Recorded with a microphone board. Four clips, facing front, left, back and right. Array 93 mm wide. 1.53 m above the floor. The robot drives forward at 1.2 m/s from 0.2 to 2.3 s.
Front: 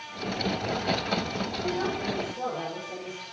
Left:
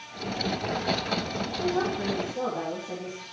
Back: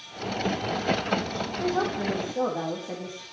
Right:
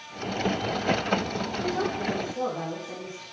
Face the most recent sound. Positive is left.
turn(degrees=175)